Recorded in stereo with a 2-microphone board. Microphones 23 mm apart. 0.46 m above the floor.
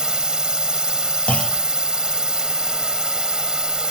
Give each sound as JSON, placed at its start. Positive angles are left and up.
{"t": 0.0, "sound": "a drone", "side_deg": -35}
{"t": 1.3, "sound": "a clunk", "side_deg": 70}